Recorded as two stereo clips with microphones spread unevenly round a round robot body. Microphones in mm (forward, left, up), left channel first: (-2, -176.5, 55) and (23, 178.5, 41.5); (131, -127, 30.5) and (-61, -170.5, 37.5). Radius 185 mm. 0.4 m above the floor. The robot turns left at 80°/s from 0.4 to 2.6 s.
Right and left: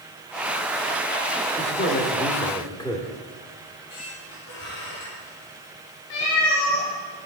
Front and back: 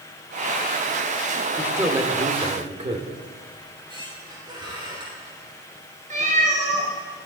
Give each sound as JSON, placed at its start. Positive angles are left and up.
{"t": 1.6, "sound": "a man speaking", "azimuth_deg": -85, "distance_m": 1.6}
{"t": 3.6, "sound": "a squeak", "azimuth_deg": -100, "distance_m": 6.0}
{"t": 6.1, "sound": "a cat meowing", "azimuth_deg": -115, "distance_m": 4.0}